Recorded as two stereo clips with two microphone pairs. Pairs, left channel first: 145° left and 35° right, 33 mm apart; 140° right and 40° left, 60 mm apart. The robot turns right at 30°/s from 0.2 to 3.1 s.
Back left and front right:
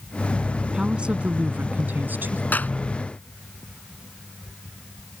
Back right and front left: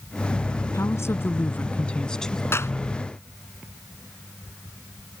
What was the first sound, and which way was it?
A woman speaking, 105° right.